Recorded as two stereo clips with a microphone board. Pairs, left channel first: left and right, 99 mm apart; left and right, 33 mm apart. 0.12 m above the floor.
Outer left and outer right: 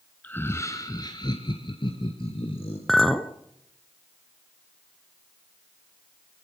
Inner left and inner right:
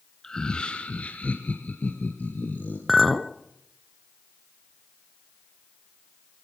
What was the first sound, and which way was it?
Laughter, 15° left (ahead or behind).